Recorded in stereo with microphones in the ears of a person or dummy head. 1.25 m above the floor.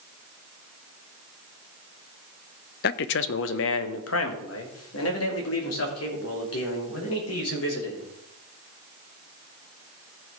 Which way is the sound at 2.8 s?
55° left (ahead or behind).